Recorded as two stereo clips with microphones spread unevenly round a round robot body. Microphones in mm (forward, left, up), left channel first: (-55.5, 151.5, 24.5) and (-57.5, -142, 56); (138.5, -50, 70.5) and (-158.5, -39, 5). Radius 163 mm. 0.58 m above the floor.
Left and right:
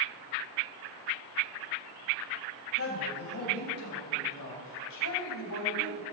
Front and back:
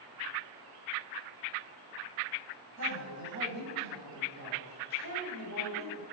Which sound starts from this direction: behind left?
A woman speaking, at 2.8 s.